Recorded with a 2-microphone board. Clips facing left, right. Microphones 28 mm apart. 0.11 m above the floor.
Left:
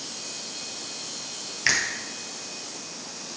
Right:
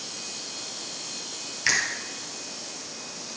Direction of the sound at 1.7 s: 10° left (ahead or behind).